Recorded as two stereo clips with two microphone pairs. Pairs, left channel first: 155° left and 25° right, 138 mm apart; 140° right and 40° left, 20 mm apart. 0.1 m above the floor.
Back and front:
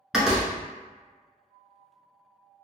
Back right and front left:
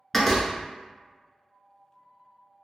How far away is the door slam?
About 0.8 m.